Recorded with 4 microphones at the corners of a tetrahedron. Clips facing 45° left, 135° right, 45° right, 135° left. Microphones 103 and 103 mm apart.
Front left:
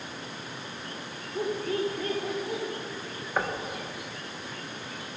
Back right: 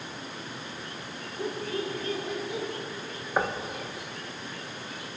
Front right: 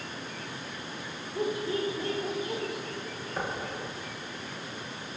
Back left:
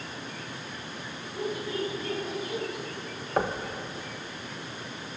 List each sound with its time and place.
1.4 s laughter: 15° left, 5 m; by 2.6 s straight ahead, 5.5 m
3.4 s knocking: 145° left, 1.4 m